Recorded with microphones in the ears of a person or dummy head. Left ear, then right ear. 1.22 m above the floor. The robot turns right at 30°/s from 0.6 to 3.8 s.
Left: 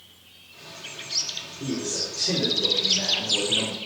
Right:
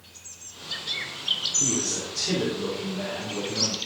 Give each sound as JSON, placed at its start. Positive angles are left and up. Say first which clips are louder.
{"t": 1.6, "sound": "a man speaking", "louder": "right 2 dB", "azimuth_deg": -25, "distance_m": 4.0}